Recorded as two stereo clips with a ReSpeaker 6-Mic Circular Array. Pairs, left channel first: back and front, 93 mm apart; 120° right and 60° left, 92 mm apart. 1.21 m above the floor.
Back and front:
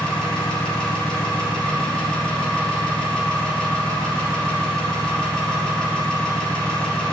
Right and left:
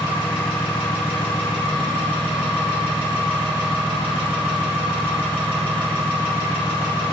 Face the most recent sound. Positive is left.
turn(degrees=-100)